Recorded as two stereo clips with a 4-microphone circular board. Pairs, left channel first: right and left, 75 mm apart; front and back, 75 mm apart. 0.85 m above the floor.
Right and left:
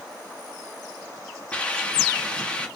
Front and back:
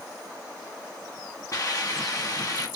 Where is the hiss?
20° right, 1.3 m.